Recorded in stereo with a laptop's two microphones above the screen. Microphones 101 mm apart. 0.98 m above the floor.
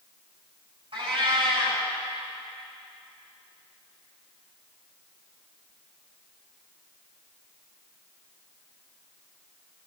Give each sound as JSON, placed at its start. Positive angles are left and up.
{"t": 0.9, "sound": "a cat meowing", "side_deg": -60, "distance_m": 5.0}